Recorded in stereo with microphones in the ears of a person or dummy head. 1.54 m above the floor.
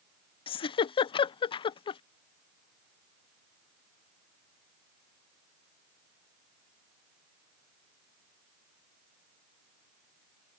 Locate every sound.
0.5 s a giggle: 35° left (ahead or behind)